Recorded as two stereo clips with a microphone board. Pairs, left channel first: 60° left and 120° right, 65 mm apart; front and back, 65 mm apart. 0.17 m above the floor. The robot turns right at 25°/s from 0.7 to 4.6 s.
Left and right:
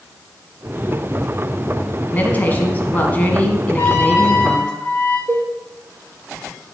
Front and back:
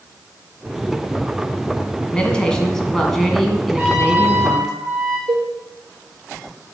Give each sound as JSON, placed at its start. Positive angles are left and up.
{"t": 2.1, "sound": "a woman speaking", "azimuth_deg": 50, "distance_m": 1.3}
{"t": 3.8, "sound": "a trumpet", "azimuth_deg": 110, "distance_m": 2.5}
{"t": 5.3, "sound": "a cowbell", "azimuth_deg": -165, "distance_m": 3.0}